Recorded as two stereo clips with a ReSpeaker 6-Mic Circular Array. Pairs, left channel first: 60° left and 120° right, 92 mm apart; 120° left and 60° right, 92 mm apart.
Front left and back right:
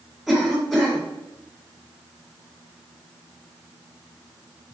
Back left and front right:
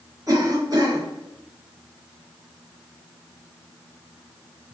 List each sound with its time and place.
0.3 s a cough: 40° right, 1.6 m